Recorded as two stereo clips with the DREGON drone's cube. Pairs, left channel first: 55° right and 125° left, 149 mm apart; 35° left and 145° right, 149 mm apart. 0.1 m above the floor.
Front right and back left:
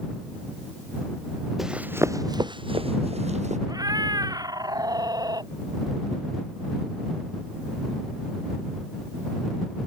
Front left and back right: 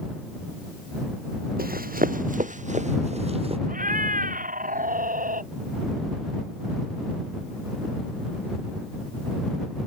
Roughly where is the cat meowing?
Behind.